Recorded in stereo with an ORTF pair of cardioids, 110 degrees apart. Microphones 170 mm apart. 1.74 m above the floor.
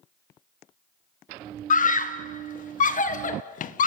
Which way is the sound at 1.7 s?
50° left.